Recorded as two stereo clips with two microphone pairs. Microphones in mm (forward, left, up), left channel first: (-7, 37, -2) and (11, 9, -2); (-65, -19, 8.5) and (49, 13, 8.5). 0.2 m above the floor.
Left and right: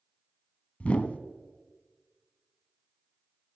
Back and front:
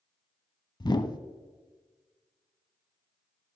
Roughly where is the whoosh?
Behind left.